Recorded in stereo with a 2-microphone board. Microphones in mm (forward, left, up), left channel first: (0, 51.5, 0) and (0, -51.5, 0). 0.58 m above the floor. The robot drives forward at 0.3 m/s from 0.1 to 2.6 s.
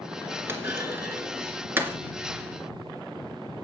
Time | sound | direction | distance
0.5 | a clunk | 25° right (ahead or behind) | 2 m